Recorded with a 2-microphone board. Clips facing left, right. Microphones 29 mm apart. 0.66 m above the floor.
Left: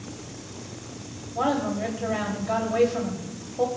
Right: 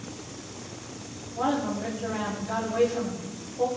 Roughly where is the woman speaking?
Left.